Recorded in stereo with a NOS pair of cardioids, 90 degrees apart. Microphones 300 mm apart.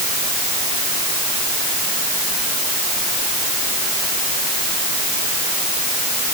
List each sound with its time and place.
Only background noise.